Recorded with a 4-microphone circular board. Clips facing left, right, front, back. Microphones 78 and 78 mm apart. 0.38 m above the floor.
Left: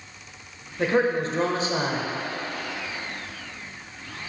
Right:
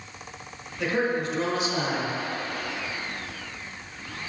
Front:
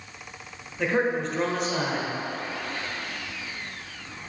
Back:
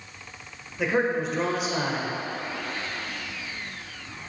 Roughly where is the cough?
No cough in this recording.